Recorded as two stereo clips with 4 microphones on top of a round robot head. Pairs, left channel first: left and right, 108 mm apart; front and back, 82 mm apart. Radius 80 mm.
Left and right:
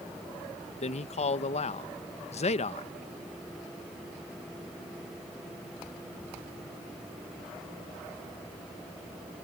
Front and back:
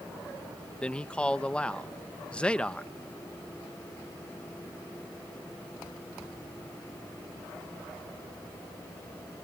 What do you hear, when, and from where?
0.8 s a man speaking: 80° left